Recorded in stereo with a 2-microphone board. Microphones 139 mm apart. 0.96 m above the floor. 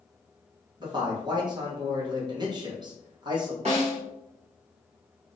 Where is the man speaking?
35° right (ahead or behind), 1.0 m.